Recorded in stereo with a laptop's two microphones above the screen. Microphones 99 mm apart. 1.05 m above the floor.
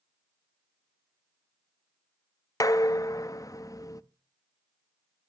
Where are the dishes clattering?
35° left (ahead or behind), 0.6 m.